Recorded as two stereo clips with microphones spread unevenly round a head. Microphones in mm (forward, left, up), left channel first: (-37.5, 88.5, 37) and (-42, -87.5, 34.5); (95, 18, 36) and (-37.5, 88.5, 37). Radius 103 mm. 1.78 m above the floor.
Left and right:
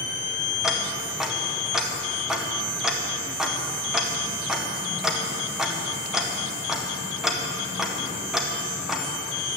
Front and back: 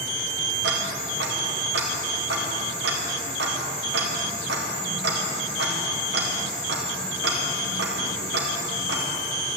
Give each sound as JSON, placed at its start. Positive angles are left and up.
{"t": 0.6, "sound": "ticking", "azimuth_deg": 180, "distance_m": 1.8}